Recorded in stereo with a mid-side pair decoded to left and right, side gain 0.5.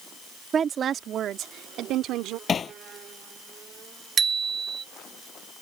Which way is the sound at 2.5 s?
40° left.